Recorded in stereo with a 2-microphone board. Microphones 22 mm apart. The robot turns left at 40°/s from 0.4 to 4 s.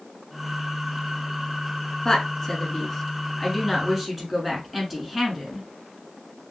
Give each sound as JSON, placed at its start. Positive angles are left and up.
{"t": 2.0, "sound": "a woman speaking", "side_deg": 30, "distance_m": 1.3}